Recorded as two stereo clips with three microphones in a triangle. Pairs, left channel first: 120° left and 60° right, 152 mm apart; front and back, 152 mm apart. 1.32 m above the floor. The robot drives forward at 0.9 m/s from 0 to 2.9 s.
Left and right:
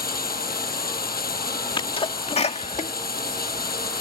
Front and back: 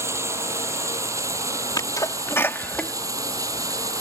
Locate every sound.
0.0 s running water: 105° left; by 4.0 s 110° left
1.8 s a sneeze: 65° left; by 2.9 s 85° left